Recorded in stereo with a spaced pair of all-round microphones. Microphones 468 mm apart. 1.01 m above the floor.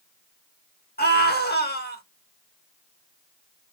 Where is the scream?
20° left (ahead or behind), 1.5 m.